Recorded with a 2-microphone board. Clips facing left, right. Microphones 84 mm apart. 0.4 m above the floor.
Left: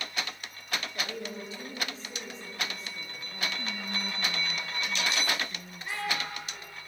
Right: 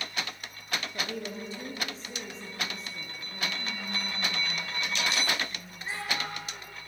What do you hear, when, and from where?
0.9 s a woman speaking: 35° right (ahead or behind), 7 m; by 3.5 s 30° right (ahead or behind), 8 m
3.6 s whispering: 20° left (ahead or behind), 1.8 m
5.8 s a child speaking: 25° right (ahead or behind), 7 m